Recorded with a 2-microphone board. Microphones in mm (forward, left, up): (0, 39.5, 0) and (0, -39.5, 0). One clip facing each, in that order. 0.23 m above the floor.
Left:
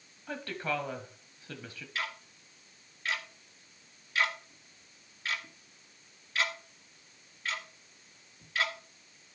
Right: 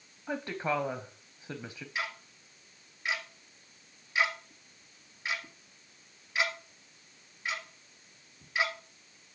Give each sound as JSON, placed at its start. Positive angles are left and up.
{"t": 0.3, "sound": "a woman speaking", "side_deg": -20, "distance_m": 1.0}
{"t": 1.9, "sound": "ticking", "side_deg": -20, "distance_m": 2.0}